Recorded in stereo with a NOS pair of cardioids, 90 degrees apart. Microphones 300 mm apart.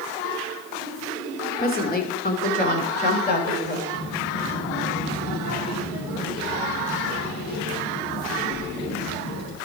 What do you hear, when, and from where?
1.6 s a woman speaking: 30° left, 2.5 m; by 3.8 s 35° left, 4.5 m
3.9 s a child speaking: 65° left, 6 m